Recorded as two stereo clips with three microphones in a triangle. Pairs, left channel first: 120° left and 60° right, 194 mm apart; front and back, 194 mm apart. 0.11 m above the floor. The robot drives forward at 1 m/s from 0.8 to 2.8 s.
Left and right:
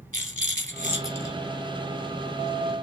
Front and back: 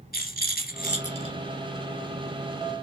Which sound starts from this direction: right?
A rattle, at 0.1 s.